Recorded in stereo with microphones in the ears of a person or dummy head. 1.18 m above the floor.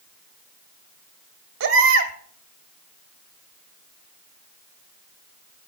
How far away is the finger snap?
I don't hear a finger snap.